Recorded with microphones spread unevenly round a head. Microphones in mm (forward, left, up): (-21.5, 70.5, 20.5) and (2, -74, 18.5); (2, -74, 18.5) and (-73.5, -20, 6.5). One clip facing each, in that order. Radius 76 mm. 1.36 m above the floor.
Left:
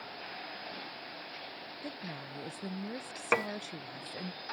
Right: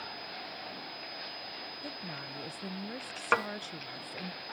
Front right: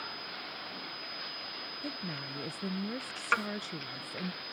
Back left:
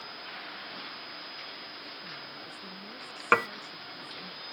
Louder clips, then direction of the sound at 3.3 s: Even, back left 6 dB; 175° left.